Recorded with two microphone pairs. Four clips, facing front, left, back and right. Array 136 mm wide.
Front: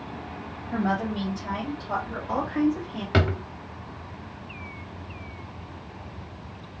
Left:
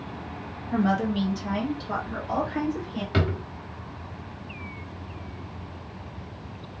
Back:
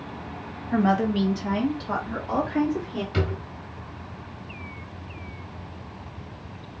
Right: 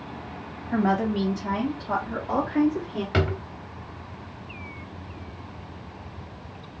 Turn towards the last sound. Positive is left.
turn(degrees=-10)